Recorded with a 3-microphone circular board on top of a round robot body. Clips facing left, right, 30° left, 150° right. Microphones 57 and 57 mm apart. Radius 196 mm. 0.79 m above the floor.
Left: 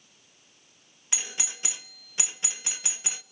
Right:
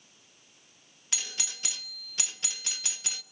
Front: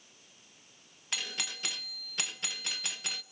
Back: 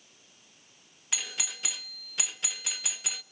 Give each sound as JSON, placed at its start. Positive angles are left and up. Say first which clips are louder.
{"t": 1.1, "sound": "a doorbell", "louder": "left 2 dB, even", "azimuth_deg": 125, "distance_m": 1.0}